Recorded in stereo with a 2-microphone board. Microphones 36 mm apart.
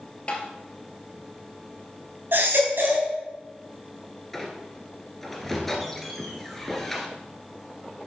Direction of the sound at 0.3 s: 30° left (ahead or behind).